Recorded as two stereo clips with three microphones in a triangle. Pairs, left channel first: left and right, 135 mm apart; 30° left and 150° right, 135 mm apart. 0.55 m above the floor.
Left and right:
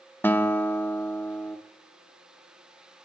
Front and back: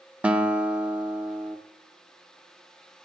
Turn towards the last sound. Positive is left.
turn(degrees=145)